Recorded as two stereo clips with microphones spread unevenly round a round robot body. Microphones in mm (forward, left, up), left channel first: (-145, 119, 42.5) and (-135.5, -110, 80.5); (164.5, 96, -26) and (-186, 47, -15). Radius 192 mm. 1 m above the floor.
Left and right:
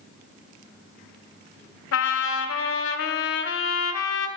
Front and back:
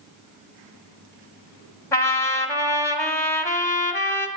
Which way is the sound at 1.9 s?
90° left.